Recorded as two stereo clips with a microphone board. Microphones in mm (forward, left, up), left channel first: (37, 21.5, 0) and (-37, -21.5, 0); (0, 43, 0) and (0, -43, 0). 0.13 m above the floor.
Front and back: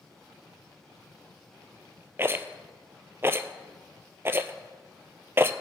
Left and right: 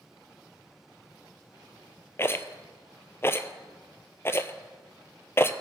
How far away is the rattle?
About 0.6 m.